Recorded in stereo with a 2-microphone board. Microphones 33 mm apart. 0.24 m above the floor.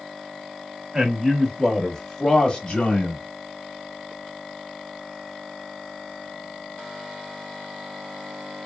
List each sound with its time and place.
0.9 s a man speaking: 20° right (ahead or behind), 1.2 m; by 3.2 s 35° left (ahead or behind), 1.1 m